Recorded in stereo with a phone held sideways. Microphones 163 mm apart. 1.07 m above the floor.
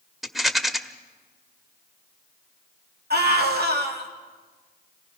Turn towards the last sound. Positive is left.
turn(degrees=-75)  # may be behind; listen again after turning